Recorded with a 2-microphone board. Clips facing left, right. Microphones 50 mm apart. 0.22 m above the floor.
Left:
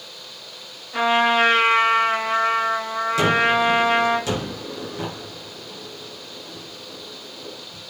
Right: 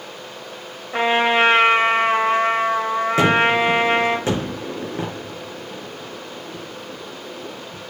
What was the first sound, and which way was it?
A trumpet, 30° right (ahead or behind).